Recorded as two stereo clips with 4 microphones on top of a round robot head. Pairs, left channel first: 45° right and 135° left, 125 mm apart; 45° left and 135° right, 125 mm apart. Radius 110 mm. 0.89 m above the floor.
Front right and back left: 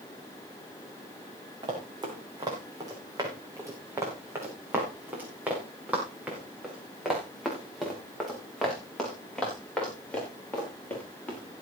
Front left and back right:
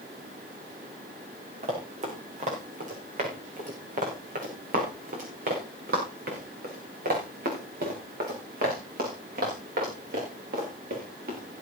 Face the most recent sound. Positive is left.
turn(degrees=-125)